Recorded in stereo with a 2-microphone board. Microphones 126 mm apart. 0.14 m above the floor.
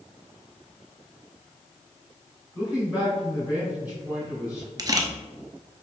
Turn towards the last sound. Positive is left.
turn(degrees=-30)  # may be behind; listen again after turning